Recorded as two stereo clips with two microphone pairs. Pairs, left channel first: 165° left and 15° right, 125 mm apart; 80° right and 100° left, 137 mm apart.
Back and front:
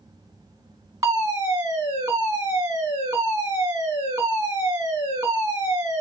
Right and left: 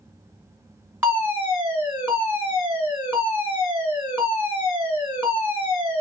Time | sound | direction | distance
1.0 | a fire alarm | 35° left | 2.0 m